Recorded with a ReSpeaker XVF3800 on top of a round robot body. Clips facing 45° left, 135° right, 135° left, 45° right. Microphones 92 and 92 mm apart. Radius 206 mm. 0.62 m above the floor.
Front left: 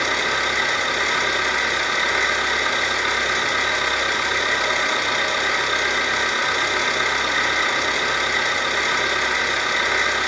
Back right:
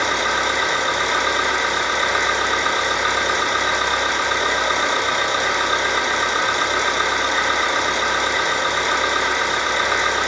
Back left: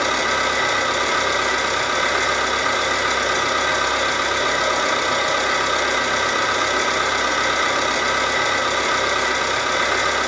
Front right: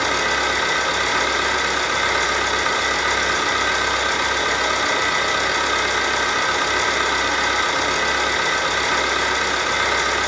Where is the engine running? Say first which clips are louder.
Back right 3 dB, back left 1 dB; 170° left, 3.5 m.